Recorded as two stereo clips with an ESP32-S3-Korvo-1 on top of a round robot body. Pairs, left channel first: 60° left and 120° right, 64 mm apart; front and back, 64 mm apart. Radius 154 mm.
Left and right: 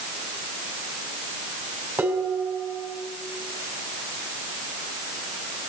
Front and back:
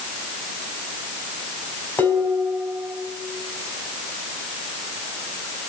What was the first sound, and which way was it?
Dishes clattering, 65° right.